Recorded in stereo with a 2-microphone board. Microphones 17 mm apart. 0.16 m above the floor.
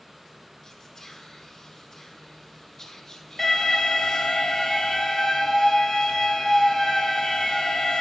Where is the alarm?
10° left (ahead or behind), 3.5 m.